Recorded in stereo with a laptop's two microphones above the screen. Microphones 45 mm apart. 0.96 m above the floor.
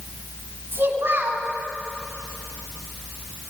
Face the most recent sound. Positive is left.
turn(degrees=-55)  # may be behind; listen again after turning